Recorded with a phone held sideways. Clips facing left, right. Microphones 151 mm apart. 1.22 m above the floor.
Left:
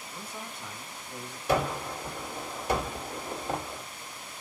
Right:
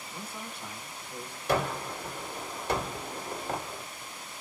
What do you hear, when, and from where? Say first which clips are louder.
0.1 s a man speaking: even; 10° right (ahead or behind), 1.4 m
1.5 s a gunshot: left 1 dB; 10° left (ahead or behind), 1.8 m